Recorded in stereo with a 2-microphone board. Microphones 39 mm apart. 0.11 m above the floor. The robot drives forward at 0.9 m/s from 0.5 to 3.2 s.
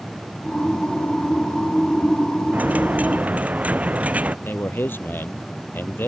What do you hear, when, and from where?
2.5 s a dropped coin: 40° right (ahead or behind); by 4.3 s 35° right (ahead or behind)
4.5 s a man speaking: 60° left (ahead or behind)